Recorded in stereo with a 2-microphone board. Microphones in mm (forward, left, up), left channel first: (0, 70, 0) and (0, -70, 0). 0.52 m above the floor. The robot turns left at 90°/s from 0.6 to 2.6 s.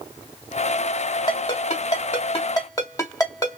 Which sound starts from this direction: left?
A ringtone, at 1.3 s.